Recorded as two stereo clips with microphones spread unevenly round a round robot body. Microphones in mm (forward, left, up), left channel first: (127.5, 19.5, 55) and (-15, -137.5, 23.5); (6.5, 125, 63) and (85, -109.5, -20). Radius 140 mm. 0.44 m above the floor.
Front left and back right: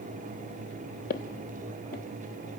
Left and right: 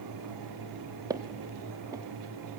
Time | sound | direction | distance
1.1 | footsteps | 15° left | 0.8 m